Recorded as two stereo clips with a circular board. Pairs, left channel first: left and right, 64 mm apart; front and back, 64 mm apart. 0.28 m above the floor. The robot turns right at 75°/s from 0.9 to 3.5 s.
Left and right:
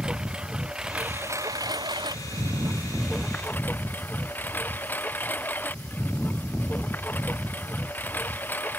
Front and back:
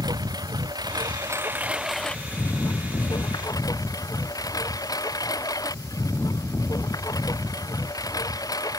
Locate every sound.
0.0 s a lawn mower: 170° right; by 8.8 s 25° left